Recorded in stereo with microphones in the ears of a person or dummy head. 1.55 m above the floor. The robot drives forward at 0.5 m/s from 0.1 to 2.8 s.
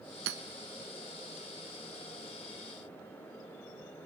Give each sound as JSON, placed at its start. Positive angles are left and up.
{"t": 0.3, "sound": "hammering", "side_deg": -70, "distance_m": 1.6}